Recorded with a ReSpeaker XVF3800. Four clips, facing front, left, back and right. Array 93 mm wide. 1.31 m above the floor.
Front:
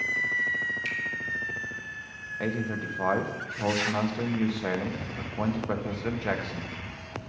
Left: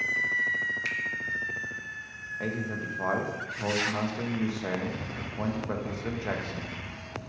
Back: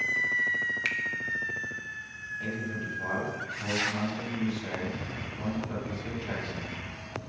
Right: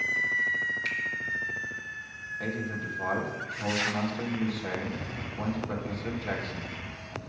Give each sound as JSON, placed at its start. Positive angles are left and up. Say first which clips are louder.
{"t": 0.8, "sound": "a finger snap", "louder": "even, back 1 dB", "azimuth_deg": 170, "distance_m": 1.0}
{"t": 2.4, "sound": "a man speaking", "louder": "left 1 dB, front 5 dB", "azimuth_deg": 15, "distance_m": 1.3}